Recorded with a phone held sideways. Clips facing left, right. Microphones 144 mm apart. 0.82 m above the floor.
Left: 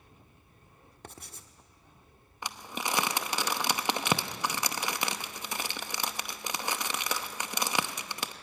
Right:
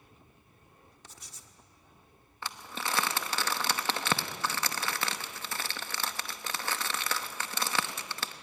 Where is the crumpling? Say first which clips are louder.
Left 2 dB; 15° left (ahead or behind), 0.9 m.